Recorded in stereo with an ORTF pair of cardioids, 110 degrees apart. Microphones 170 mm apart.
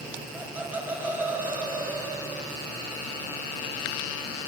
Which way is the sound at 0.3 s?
10° right.